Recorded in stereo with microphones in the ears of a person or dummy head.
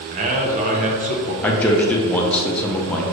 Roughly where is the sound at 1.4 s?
Centre.